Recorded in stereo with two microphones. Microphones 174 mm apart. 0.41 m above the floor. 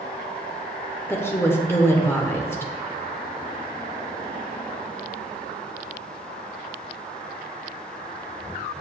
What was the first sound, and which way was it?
A woman speaking, 15° left (ahead or behind).